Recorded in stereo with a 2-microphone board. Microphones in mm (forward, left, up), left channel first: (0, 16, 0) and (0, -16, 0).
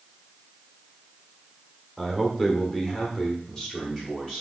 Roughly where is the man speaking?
Centre.